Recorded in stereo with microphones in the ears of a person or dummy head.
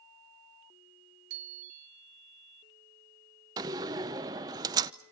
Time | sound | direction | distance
1.3 | a bicycle bell | 60° right (ahead or behind) | 4.5 m
3.6 | a door slam | 15° right (ahead or behind) | 0.8 m